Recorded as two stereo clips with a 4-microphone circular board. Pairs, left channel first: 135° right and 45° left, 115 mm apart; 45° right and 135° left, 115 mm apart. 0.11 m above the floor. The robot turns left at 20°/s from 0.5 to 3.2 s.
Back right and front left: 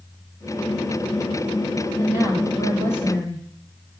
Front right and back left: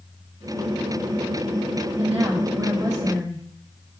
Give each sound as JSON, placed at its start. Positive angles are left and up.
{"t": 2.0, "sound": "a woman speaking", "azimuth_deg": 110, "distance_m": 3.0}